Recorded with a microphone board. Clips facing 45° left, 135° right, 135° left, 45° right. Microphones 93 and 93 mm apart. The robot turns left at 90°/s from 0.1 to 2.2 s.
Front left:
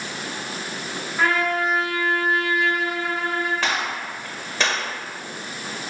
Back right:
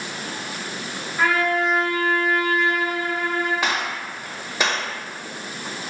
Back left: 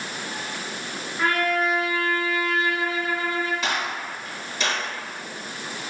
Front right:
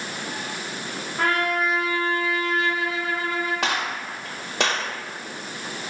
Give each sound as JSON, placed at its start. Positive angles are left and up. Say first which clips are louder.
{"t": 1.2, "sound": "a trumpet", "louder": "back right 1 dB, even", "azimuth_deg": -40, "distance_m": 0.8}
{"t": 3.6, "sound": "a gunshot", "louder": "even, front right 1 dB", "azimuth_deg": -55, "distance_m": 0.6}